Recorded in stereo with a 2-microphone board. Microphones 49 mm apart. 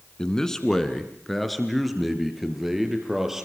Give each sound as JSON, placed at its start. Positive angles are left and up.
{"t": 0.2, "sound": "a man speaking", "side_deg": 15, "distance_m": 2.0}